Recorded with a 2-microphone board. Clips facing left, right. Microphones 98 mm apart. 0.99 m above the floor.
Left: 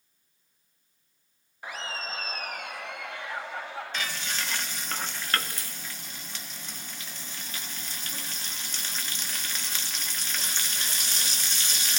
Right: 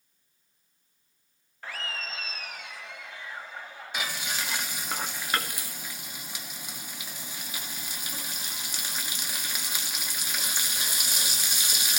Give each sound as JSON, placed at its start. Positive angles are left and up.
{"t": 1.6, "sound": "laughter", "side_deg": 15, "distance_m": 0.9}
{"t": 3.9, "sound": "frying", "side_deg": -10, "distance_m": 1.7}